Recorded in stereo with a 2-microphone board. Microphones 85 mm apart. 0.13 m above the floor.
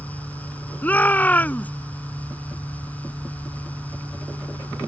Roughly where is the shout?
Centre.